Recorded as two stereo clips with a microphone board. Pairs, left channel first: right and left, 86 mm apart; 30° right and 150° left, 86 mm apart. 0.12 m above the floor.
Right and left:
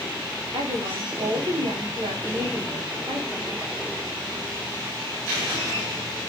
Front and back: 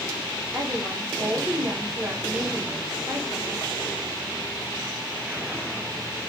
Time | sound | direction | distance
0.5 | a woman speaking | 85° left | 8.5 m